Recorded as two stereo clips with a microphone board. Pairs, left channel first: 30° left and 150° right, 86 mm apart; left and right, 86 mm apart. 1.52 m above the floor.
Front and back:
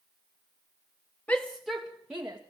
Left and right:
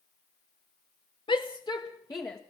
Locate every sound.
1.3 s a shout: 105° left, 1.0 m; by 2.4 s 140° left, 2.0 m